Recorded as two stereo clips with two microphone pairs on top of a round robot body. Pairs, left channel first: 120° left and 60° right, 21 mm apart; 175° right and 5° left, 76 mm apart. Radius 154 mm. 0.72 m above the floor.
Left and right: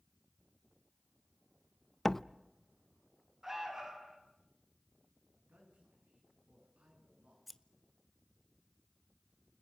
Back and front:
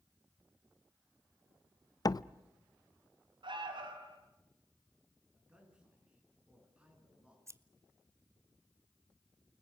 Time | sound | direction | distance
2.0 | a door slam | 175° right | 0.8 m
3.4 | an alarm | 15° left | 4.5 m
5.3 | a man speaking | 70° right | 9 m
7.5 | scissors | 40° left | 1.4 m